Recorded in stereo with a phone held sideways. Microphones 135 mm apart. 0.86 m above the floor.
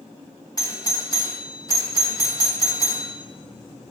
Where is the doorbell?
25° left (ahead or behind), 0.9 m.